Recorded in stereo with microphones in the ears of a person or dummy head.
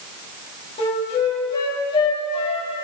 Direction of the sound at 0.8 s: 30° left (ahead or behind).